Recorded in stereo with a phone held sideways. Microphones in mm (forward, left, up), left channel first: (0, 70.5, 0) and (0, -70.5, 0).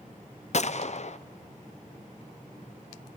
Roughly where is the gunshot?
Left.